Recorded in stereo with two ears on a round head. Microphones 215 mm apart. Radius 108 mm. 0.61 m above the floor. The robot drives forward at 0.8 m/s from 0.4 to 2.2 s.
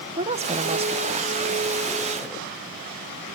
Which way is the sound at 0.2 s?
25° right (ahead or behind).